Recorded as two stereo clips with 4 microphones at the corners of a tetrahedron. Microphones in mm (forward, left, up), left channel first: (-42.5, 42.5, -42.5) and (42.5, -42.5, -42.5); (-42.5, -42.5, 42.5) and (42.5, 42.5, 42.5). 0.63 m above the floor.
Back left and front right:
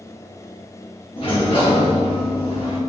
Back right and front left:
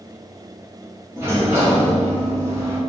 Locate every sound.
1.2 s a sliding door: 110° left, 1.0 m